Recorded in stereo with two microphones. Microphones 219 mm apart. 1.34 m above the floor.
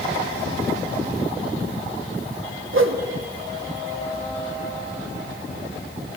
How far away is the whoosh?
About 0.8 m.